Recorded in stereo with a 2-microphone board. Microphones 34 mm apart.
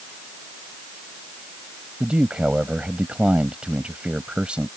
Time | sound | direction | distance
2.0 | a man speaking | 30° right (ahead or behind) | ?